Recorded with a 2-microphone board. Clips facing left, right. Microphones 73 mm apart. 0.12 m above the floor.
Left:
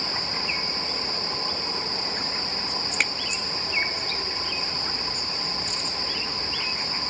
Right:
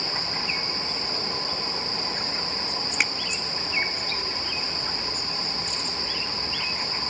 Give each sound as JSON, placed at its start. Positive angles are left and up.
{"t": 3.0, "sound": "a finger snap", "side_deg": -5}